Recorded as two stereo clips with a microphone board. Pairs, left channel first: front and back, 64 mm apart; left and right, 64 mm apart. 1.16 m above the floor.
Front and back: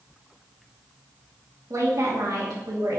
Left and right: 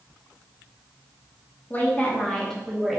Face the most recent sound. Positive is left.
turn(degrees=180)